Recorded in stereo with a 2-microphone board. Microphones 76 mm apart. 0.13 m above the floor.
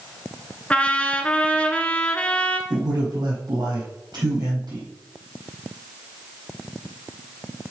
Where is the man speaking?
65° right (ahead or behind), 4 m.